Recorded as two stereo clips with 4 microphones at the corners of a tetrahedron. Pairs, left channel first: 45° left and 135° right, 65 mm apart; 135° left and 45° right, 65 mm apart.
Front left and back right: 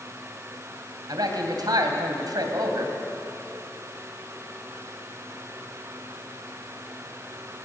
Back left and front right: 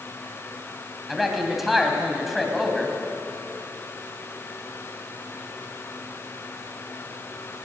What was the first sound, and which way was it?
A man speaking, 135° right.